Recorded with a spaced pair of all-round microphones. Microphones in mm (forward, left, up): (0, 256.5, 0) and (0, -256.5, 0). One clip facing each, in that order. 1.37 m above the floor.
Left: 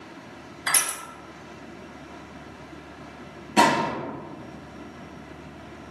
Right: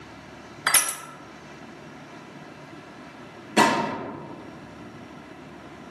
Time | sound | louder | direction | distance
0.7 | crushing | right 2 dB | 70° right (ahead or behind) | 0.5 m
3.6 | a gunshot | even | 10° left (ahead or behind) | 1.0 m